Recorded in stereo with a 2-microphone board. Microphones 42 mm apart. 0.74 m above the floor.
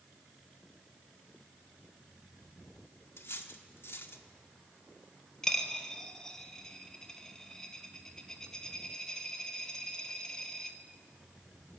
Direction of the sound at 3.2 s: 70° left (ahead or behind).